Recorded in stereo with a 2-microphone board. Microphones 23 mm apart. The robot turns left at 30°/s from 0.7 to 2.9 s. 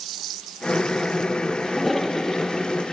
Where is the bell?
No bell in this recording.